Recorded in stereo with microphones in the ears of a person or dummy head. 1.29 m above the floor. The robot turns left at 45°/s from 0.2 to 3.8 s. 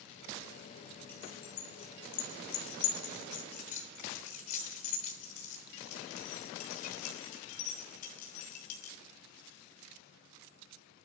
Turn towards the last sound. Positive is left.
turn(degrees=40)  # may be behind; listen again after turning